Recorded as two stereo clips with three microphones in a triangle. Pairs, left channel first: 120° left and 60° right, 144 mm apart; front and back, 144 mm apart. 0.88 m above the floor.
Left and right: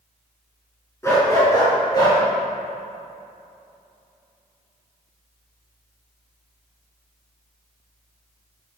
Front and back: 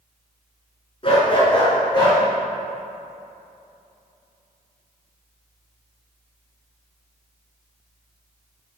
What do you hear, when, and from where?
1.0 s a dog barking: 50° left, 3 m; by 2.2 s 60° left, 4.5 m